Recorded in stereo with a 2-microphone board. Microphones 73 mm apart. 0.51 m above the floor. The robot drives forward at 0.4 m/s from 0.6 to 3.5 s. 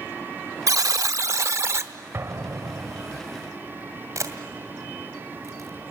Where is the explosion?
40° right (ahead or behind), 1.4 m; by 3.2 s 50° right (ahead or behind), 1.1 m.